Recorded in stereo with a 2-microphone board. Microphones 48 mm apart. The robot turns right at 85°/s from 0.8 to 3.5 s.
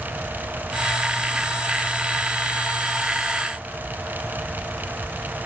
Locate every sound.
Only background noise.